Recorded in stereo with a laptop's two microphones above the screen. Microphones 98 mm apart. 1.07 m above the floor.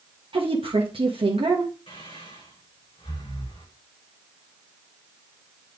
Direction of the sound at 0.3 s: 65° right (ahead or behind).